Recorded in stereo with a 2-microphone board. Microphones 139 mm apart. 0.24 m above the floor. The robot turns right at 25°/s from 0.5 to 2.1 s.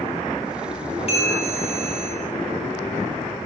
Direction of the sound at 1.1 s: 40° left (ahead or behind).